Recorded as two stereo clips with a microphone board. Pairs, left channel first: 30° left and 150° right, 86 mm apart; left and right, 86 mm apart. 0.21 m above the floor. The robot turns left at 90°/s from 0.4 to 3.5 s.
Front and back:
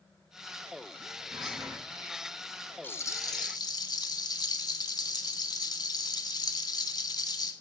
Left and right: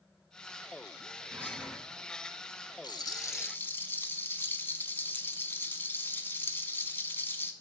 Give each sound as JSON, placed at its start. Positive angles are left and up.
{"t": 1.3, "sound": "whispering", "azimuth_deg": -140, "distance_m": 1.7}
{"t": 2.8, "sound": "a rattle", "azimuth_deg": 90, "distance_m": 0.6}